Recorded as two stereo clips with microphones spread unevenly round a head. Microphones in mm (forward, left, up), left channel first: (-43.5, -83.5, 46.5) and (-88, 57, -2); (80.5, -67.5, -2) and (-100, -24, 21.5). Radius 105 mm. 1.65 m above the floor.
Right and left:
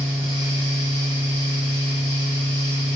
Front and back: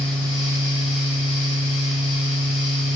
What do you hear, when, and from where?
0.0 s a fan: straight ahead, 1.2 m